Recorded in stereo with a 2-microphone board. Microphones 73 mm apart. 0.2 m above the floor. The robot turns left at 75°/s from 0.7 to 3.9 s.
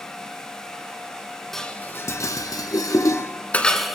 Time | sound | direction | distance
1.5 | dishes clattering | 5° left (ahead or behind) | 1.4 m